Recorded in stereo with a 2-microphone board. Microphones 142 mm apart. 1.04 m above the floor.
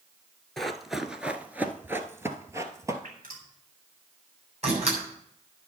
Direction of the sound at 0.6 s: Centre (ahead or behind).